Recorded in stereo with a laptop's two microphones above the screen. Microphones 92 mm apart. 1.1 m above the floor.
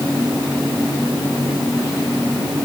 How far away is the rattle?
No rattle in this recording.